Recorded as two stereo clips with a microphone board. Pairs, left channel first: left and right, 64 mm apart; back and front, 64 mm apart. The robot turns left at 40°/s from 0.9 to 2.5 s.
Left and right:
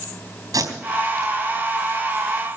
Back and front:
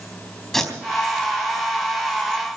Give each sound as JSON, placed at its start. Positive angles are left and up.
{"t": 0.5, "sound": "tape being pulled", "azimuth_deg": -95, "distance_m": 3.5}